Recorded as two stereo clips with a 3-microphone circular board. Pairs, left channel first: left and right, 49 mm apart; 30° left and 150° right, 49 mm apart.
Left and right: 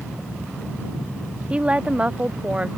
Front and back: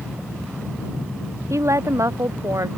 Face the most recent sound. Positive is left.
turn(degrees=-160)